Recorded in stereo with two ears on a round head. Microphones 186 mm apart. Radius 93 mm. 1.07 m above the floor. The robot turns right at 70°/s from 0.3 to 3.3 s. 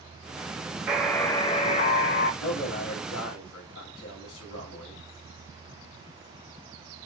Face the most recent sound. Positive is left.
turn(degrees=115)